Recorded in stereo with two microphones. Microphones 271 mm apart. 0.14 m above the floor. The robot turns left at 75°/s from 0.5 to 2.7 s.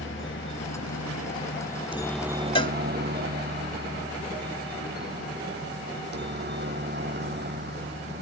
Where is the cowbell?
20° left (ahead or behind).